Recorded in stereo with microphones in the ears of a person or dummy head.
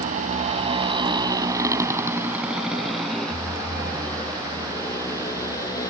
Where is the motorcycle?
50° right (ahead or behind); by 5.9 s 20° left (ahead or behind).